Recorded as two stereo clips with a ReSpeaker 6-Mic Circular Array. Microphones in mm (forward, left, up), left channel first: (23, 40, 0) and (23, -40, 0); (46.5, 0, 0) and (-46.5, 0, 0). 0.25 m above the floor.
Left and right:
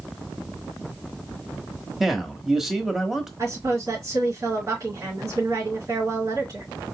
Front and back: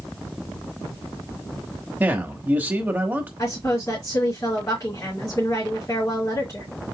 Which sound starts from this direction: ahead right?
A woman speaking, at 3.4 s.